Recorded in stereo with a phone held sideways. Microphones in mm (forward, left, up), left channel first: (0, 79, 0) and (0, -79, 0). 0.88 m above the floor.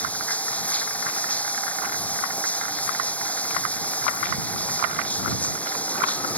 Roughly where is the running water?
Centre.